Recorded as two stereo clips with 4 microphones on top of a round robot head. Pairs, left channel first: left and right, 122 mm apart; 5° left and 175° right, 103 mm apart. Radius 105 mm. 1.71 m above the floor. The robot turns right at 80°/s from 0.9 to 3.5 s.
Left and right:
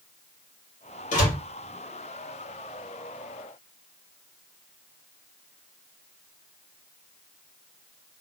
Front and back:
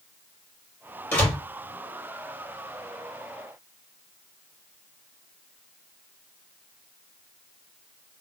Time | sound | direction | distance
1.1 | a door slam | 70° left | 2 m